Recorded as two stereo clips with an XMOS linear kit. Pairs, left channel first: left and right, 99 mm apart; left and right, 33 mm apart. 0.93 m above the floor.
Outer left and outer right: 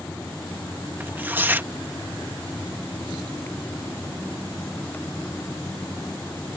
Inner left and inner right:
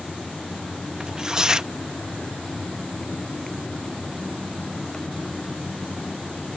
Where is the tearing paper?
20° right (ahead or behind).